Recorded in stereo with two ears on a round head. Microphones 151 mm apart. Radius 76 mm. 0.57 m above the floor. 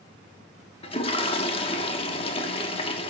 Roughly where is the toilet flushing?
Left.